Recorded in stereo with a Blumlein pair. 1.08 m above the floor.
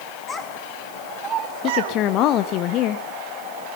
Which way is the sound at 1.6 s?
35° left.